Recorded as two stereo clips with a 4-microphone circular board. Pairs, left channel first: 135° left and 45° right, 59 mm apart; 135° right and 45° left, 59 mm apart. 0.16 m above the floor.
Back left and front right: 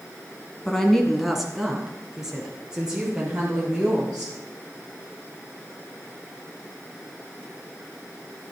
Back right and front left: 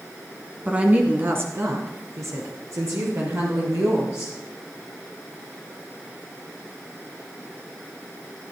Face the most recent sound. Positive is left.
turn(degrees=30)